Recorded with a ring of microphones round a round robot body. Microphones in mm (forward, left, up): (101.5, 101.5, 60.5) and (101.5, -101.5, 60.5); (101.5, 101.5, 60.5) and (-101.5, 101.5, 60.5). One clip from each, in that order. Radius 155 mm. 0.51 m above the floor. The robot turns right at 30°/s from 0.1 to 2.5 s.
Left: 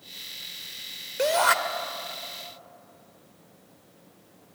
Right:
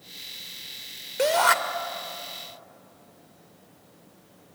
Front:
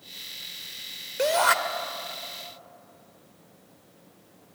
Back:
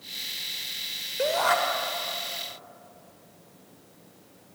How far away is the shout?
About 2 m.